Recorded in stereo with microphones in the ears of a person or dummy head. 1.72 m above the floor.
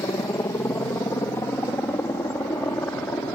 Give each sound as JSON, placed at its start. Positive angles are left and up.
{"t": 0.0, "sound": "a helicopter", "side_deg": 15}